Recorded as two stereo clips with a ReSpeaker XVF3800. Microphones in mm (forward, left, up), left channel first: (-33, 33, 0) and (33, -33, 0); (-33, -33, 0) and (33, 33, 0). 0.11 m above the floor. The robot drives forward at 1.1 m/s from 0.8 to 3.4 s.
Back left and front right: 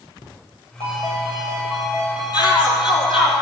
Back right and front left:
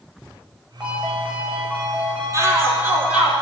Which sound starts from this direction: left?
A shout, at 2.3 s.